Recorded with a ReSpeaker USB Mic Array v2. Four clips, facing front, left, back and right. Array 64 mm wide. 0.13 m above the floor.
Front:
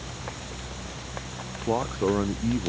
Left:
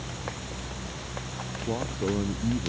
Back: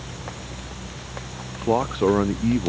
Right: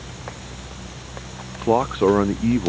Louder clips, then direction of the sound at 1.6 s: Right 13 dB, back 5 dB; 105° right.